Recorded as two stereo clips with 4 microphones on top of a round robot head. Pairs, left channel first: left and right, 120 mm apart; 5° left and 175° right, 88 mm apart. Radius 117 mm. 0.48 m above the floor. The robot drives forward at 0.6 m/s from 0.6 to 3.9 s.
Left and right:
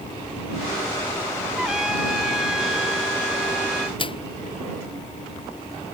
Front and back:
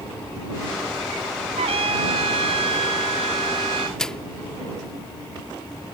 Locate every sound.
1.6 s a trumpet: 175° right; by 3.9 s straight behind
4.0 s a microwave: 85° left